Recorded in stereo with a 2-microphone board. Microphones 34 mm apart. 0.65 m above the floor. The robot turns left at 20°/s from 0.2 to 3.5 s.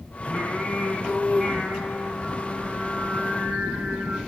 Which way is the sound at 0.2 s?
10° left.